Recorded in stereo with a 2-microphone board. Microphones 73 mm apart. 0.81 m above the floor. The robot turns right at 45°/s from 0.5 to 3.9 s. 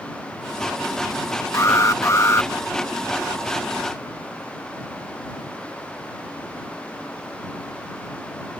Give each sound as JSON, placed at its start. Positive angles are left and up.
{"t": 1.5, "sound": "an alarm", "azimuth_deg": 75}